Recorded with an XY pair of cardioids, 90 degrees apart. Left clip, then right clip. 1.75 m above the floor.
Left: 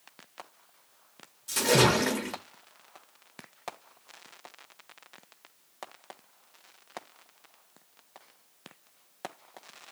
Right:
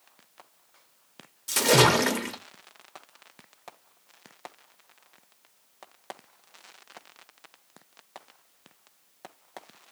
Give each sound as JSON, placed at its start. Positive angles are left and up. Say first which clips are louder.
{"t": 1.5, "sound": "a splash", "louder": "right 3 dB", "azimuth_deg": -50, "distance_m": 0.8}